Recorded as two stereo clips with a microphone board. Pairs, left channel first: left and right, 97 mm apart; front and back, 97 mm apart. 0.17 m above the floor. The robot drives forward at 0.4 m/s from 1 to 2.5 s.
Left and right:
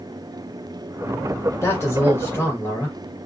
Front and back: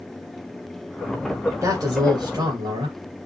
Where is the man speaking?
140° left, 1.8 m; by 3.0 s 150° left, 2.0 m.